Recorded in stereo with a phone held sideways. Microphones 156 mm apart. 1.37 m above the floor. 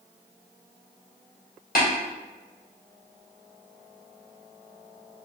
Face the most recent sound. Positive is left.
turn(degrees=65)  # may be behind; listen again after turning